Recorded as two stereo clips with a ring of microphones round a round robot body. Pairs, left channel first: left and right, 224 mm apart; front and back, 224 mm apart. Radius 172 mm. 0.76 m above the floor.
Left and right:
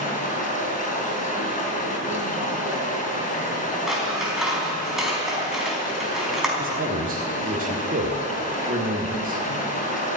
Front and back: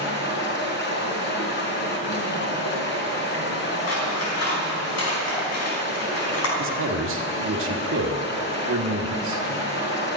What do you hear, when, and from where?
0.0 s running water: 35° left, 4 m
3.9 s scissors: straight ahead, 4.5 m
6.6 s a man speaking: 145° right, 1.6 m